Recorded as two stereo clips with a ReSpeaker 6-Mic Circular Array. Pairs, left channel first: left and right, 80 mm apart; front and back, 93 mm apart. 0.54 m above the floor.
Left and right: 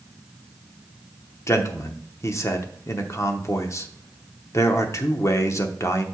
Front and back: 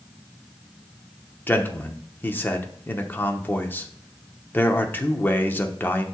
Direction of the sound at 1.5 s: 60° left.